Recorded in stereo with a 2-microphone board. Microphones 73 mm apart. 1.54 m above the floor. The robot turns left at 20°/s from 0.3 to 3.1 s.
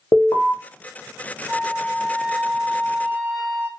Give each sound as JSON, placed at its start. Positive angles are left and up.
{"t": 0.1, "sound": "an alarm", "side_deg": 50, "distance_m": 0.7}
{"t": 1.5, "sound": "a flute", "side_deg": -25, "distance_m": 1.1}